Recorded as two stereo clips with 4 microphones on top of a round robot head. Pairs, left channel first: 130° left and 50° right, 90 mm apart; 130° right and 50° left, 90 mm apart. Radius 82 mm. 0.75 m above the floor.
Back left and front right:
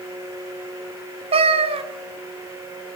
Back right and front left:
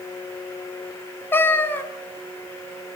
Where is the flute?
No flute in this recording.